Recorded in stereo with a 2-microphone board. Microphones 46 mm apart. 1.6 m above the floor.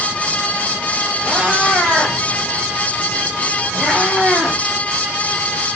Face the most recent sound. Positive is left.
turn(degrees=-30)  # may be behind; listen again after turning